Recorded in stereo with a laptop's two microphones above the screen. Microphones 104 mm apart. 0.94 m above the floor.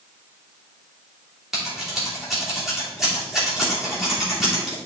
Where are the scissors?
5° right (ahead or behind), 2.5 m.